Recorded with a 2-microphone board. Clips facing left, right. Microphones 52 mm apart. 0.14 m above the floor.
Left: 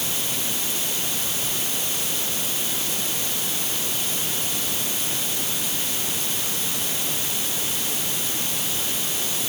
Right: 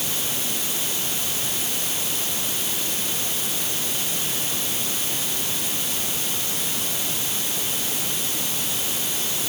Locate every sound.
Only background noise.